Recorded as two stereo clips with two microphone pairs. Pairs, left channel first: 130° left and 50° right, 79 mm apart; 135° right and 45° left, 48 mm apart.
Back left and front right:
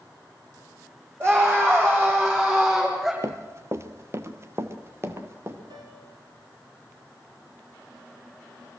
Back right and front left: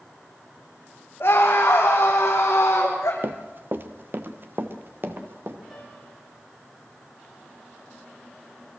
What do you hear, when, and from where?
1.2 s a scream: 105° right, 5.5 m; by 3.1 s 130° right, 5 m
3.2 s running footsteps: straight ahead, 1.2 m; by 5.6 s 5° left, 3 m
5.7 s a piano: 50° right, 8 m